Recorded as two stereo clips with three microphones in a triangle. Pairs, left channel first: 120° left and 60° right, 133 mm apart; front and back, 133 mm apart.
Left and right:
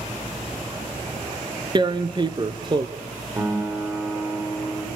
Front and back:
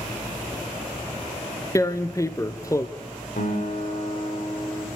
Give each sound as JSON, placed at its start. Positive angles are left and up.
{"t": 1.8, "sound": "tearing paper", "azimuth_deg": -50, "distance_m": 1.0}
{"t": 3.4, "sound": "a guitar", "azimuth_deg": 10, "distance_m": 7.0}